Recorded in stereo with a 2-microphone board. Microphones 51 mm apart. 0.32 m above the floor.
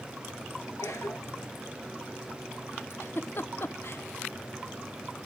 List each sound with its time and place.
0.8 s a cough: 75° left (ahead or behind), 4.5 m
2.9 s a giggle: 55° left (ahead or behind), 0.6 m